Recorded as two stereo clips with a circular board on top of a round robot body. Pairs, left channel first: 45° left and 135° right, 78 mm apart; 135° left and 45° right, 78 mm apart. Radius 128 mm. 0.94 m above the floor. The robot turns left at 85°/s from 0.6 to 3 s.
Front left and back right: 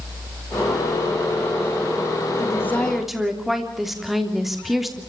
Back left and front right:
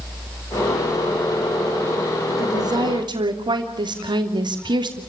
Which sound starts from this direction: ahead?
A woman speaking, at 2.4 s.